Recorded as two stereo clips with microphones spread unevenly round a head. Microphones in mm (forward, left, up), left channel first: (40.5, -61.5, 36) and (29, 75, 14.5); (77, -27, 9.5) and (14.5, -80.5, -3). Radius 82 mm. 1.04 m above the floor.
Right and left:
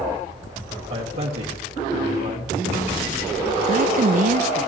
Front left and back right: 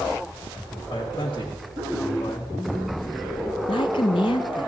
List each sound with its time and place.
0.9 s a man speaking: 100° left, 1.8 m
3.7 s a woman speaking: 95° left, 0.6 m